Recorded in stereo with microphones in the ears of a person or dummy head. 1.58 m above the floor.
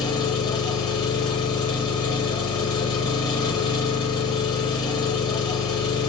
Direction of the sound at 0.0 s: 20° left (ahead or behind).